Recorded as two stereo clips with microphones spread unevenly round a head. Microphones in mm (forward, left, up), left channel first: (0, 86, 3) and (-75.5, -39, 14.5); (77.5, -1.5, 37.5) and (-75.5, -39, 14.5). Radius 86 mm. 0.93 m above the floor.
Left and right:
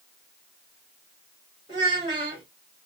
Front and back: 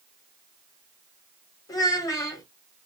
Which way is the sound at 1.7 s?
55° right.